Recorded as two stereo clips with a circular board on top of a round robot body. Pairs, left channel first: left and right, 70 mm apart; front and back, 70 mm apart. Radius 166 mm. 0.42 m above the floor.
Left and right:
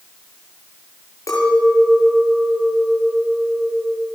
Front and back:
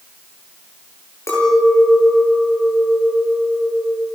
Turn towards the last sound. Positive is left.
turn(degrees=50)